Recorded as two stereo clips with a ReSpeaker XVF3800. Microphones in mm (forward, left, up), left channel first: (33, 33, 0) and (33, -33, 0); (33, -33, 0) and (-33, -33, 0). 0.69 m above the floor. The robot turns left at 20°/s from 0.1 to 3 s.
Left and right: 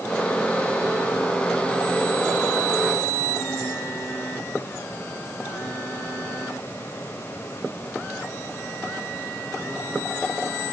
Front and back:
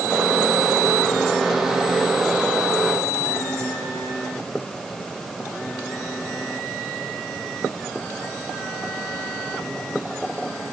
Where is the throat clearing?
No throat clearing in this recording.